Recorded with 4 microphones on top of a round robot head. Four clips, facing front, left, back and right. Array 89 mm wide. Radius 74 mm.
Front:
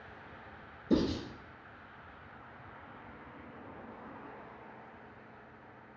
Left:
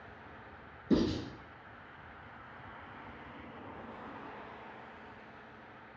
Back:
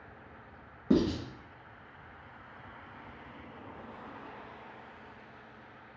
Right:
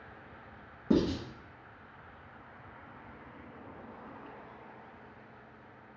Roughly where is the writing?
Behind right.